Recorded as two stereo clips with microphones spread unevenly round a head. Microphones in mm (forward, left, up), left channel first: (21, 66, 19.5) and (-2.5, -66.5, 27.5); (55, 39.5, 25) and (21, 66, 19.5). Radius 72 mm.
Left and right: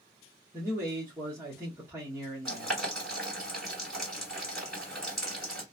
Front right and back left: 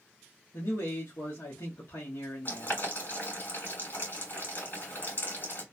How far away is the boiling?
About 2.5 m.